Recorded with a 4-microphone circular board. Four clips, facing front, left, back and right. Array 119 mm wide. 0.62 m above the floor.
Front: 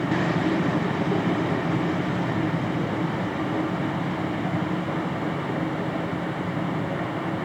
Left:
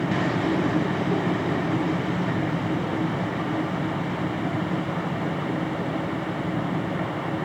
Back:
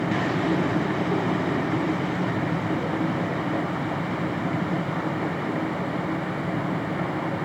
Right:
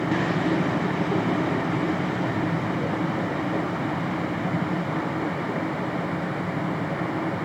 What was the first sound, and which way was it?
Only background noise.